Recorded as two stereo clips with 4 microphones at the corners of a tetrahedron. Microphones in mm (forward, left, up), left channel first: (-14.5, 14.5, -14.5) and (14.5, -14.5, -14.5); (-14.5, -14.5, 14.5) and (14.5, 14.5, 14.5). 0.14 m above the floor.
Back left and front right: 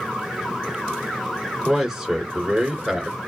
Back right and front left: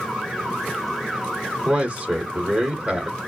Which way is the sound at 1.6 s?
25° left.